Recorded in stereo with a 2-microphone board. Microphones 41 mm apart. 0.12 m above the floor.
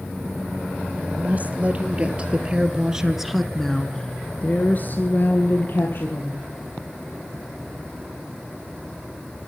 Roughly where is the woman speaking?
Right.